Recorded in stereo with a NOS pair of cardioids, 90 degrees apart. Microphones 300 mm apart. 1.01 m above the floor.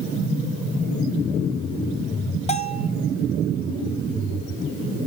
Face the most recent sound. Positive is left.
turn(degrees=20)